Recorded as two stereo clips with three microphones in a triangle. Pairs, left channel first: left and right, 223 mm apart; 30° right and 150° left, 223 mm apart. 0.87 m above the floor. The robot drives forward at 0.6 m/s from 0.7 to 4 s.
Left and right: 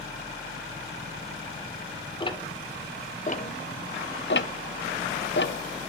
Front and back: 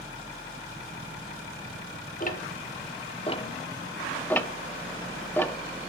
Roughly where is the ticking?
Ahead.